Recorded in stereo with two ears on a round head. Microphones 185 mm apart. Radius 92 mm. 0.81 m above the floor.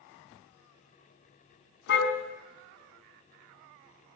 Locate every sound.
1.9 s a car horn: 55° left (ahead or behind), 4 m